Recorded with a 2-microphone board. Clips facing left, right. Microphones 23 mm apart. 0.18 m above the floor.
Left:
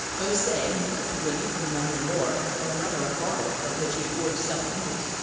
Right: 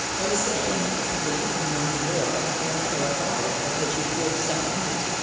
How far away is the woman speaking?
About 5.5 m.